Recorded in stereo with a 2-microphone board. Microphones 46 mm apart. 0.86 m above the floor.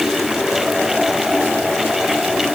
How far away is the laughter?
I don't hear laughter.